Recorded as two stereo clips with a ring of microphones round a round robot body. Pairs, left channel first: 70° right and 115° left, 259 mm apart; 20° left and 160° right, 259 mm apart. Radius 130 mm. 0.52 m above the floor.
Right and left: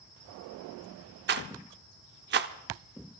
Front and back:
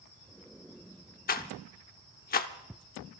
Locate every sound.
1.3 s a rattle: 70° left, 0.8 m